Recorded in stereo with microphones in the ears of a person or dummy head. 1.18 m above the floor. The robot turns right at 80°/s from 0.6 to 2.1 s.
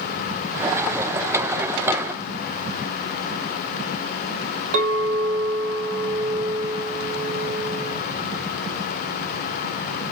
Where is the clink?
75° right (ahead or behind), 1.1 m.